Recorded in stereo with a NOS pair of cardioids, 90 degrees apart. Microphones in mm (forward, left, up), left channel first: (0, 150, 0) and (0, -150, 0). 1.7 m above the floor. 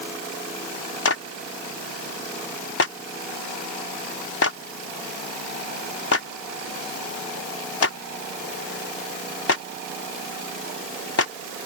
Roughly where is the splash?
I don't hear a splash.